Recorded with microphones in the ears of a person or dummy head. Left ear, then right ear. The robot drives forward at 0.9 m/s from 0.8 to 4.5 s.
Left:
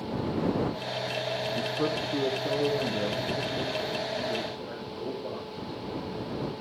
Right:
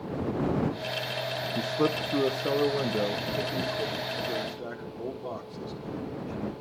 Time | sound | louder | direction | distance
1.6 | a man speaking | right 1 dB | 80° right | 1.0 m